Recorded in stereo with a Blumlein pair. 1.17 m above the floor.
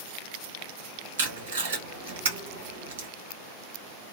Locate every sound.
1.2 s tape being pulled: 60° right, 1.2 m